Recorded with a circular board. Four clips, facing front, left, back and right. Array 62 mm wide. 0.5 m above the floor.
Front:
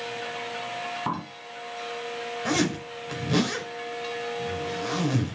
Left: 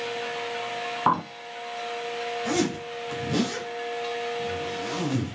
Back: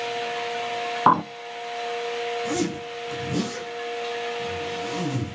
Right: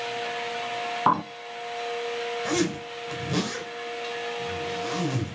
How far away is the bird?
About 0.5 m.